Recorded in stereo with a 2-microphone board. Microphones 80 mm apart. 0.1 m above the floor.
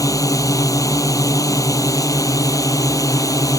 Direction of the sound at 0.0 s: 45° left (ahead or behind).